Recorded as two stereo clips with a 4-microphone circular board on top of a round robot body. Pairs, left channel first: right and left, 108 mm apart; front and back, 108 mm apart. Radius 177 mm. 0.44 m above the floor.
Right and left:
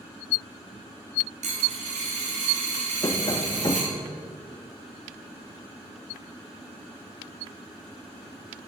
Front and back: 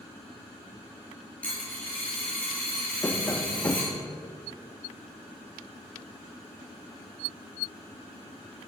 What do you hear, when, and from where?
1.4 s a dropped coin: 80° left, 1.8 m
3.0 s tapping: 60° right, 0.9 m